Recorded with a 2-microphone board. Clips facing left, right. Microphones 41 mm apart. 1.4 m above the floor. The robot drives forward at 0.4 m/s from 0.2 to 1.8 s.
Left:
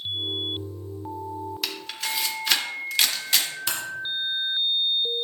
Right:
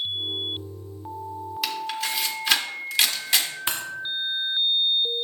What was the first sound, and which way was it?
A camera shutter, 10° right (ahead or behind).